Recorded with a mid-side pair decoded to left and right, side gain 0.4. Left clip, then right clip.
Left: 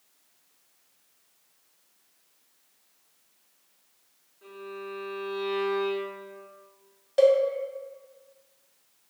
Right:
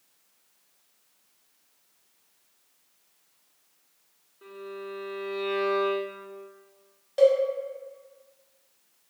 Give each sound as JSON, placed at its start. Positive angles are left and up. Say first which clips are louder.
{"t": 4.4, "sound": "a violin", "louder": "even", "azimuth_deg": -70, "distance_m": 1.0}
{"t": 7.2, "sound": "a cowbell", "louder": "even", "azimuth_deg": 25, "distance_m": 0.6}